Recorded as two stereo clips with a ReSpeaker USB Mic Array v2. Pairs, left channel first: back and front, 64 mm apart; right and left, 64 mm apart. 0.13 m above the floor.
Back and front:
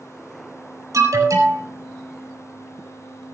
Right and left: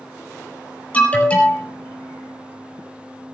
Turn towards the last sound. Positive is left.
turn(degrees=-25)